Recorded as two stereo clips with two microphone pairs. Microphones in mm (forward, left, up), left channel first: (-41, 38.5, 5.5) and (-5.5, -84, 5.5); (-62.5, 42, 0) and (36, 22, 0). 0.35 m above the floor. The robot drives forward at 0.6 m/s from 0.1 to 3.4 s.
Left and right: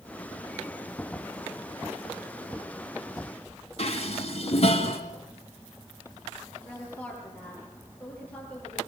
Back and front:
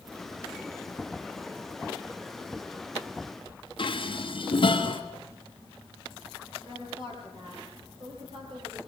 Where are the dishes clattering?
140° left, 2.5 m.